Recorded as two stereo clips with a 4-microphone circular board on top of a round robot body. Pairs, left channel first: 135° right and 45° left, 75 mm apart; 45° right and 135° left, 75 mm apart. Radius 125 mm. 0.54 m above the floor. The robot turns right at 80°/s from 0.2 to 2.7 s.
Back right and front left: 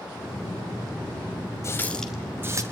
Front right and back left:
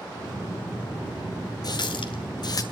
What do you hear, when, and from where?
1.6 s a running tap: 80° right, 2.5 m; by 2.6 s straight ahead, 2.5 m